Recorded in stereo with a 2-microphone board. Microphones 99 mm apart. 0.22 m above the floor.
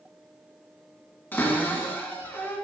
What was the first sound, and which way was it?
A cupboard door, 20° left (ahead or behind).